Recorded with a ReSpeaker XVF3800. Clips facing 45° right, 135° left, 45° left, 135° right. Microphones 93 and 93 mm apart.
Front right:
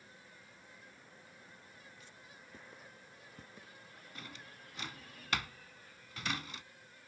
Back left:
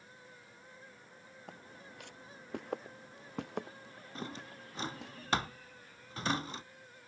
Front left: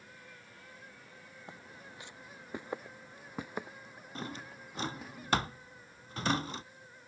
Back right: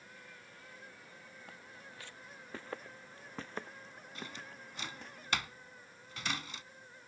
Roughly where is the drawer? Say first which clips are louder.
Back left 9 dB, front left 6 dB; left.